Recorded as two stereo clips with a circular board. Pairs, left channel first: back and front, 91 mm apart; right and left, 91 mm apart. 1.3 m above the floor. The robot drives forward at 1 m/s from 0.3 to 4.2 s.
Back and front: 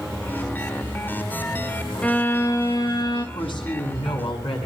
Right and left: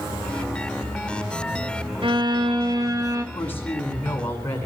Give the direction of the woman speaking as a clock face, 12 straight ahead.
5 o'clock.